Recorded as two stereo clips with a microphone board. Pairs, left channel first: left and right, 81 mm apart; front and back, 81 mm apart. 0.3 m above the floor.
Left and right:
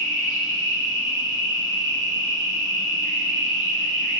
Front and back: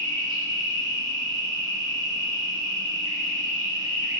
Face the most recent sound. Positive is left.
turn(degrees=-170)